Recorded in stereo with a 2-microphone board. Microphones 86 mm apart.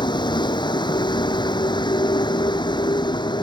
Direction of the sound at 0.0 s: 65° left (ahead or behind).